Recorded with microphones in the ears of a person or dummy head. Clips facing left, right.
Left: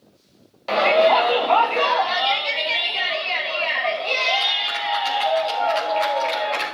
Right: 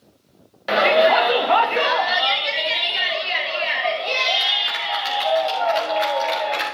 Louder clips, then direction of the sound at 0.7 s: Even; 15° right (ahead or behind).